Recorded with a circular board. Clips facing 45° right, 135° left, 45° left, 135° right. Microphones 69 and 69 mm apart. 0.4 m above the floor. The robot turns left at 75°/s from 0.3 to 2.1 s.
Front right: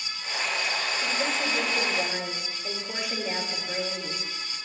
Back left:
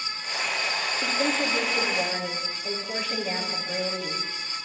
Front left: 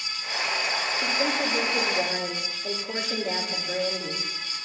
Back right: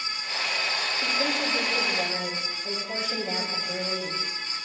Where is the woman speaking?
115° left, 7 m; by 4.2 s 35° left, 7 m.